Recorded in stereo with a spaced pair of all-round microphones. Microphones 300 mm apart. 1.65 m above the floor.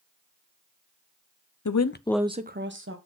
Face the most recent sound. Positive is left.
turn(degrees=-45)  # may be behind; listen again after turning